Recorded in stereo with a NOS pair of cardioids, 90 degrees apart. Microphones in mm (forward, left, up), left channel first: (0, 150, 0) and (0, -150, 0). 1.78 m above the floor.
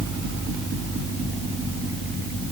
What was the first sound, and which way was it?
Only background noise.